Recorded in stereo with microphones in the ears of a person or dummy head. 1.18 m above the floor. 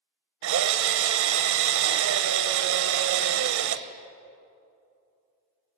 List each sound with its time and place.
0.4 s a drill: 65° right (ahead or behind), 0.6 m